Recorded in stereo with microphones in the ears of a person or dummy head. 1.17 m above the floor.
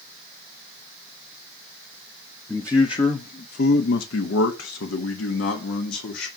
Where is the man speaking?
5° left (ahead or behind), 0.7 m; by 6.3 s 80° left, 1.8 m.